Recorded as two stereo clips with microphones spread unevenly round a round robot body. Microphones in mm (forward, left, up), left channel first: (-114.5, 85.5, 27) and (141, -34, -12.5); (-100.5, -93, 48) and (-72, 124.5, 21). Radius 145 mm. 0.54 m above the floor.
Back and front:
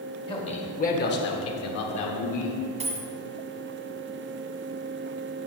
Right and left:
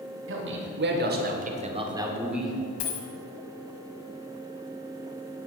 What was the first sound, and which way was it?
A man speaking, 80° left.